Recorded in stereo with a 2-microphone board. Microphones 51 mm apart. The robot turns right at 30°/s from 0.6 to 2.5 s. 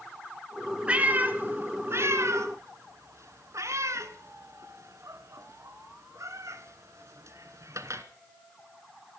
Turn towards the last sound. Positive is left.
turn(degrees=-65)  # may be behind; listen again after turning